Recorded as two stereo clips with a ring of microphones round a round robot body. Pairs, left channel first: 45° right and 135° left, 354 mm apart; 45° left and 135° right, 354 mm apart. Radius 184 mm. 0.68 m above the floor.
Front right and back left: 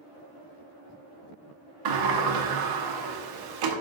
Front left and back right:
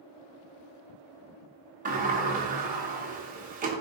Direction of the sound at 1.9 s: 160° left.